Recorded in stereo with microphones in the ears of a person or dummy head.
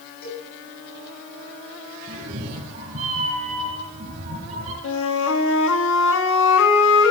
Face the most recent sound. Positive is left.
turn(degrees=75)  # may be behind; listen again after turning